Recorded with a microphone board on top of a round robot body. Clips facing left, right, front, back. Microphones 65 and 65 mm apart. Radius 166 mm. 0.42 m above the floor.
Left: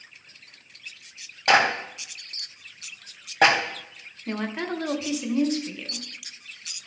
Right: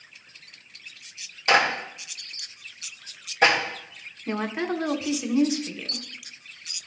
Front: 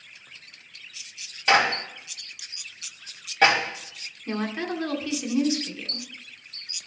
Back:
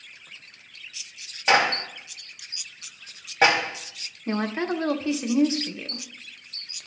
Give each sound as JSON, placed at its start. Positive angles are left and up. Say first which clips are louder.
{"t": 1.5, "sound": "a clap", "louder": "left 1 dB, even", "azimuth_deg": 110, "distance_m": 3.0}
{"t": 4.3, "sound": "a woman speaking", "louder": "right 2 dB, back 3 dB", "azimuth_deg": -170, "distance_m": 1.2}